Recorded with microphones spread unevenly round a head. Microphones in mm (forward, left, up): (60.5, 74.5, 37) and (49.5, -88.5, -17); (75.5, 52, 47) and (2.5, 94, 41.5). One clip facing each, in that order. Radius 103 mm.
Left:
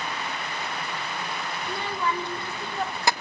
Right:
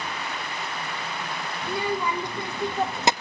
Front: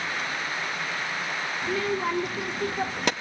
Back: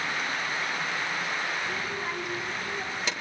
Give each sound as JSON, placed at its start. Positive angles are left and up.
{"t": 1.6, "sound": "a child speaking", "azimuth_deg": -10, "distance_m": 2.5}